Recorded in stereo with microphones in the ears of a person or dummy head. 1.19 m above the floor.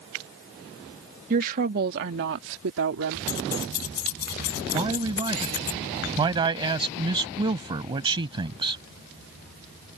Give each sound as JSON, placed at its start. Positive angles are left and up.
{"t": 1.3, "sound": "a woman speaking", "side_deg": -45}
{"t": 3.3, "sound": "keys jangling", "side_deg": 50}
{"t": 4.7, "sound": "a man speaking", "side_deg": -25}